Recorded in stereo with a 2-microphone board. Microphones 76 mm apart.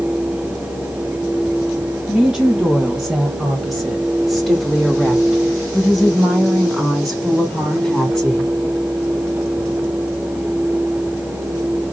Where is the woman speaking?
5° right (ahead or behind), 2 m; by 8.5 s 5° left (ahead or behind), 2.5 m.